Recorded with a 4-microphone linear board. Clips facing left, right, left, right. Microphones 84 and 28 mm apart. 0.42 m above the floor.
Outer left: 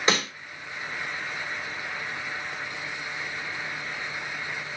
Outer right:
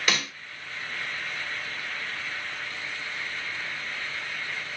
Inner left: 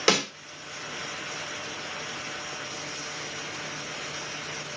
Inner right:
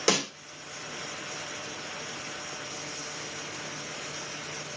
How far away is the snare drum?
About 1.4 m.